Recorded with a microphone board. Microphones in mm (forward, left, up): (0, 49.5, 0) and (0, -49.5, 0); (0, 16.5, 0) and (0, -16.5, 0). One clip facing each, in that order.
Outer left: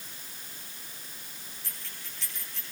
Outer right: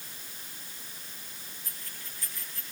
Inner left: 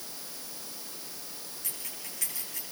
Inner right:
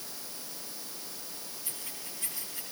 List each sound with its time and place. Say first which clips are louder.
1.6 s keys jangling: even, inner left 2 dB; 85° left, 9 m